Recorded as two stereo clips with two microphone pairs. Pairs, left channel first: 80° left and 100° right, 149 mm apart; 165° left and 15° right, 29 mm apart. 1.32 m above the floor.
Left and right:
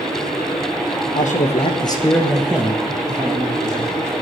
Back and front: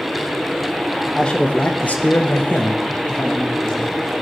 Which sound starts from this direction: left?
A man speaking, at 1.1 s.